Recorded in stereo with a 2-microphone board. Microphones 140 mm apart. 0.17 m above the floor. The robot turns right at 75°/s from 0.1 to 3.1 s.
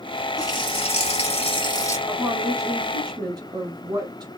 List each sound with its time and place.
0.4 s a running tap: 35° left, 1.2 m; by 2.0 s 155° left, 1.2 m
2.1 s a woman speaking: 10° right (ahead or behind), 1.1 m; by 4.3 s 30° right (ahead or behind), 1.1 m